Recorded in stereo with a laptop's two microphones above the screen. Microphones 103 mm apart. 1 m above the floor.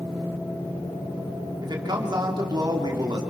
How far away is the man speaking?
About 3 m.